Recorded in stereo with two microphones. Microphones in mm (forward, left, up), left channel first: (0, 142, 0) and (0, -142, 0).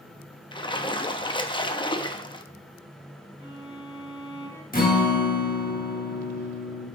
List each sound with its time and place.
0.5 s a splash: 15° left (ahead or behind), 0.5 m
3.4 s a violin: 40° left (ahead or behind), 2 m
4.7 s a guitar: 30° left (ahead or behind), 1.4 m